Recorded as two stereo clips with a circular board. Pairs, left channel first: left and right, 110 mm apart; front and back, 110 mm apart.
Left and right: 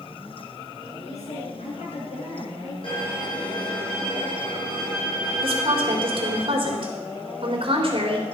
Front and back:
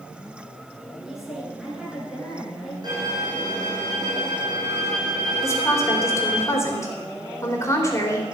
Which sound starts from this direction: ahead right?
A woman speaking, at 5.4 s.